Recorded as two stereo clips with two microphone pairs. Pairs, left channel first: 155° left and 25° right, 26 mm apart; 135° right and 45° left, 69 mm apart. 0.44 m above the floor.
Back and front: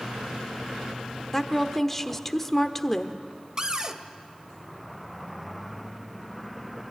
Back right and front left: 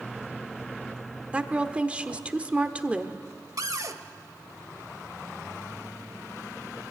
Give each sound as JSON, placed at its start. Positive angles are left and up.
{"t": 1.3, "sound": "a woman speaking", "azimuth_deg": 85, "distance_m": 1.2}
{"t": 3.6, "sound": "a cupboard door", "azimuth_deg": 30, "distance_m": 1.2}